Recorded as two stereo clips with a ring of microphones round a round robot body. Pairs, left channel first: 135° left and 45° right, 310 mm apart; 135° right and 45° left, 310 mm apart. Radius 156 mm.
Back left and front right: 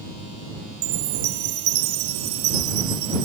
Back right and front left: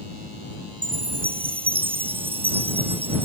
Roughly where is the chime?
Ahead right.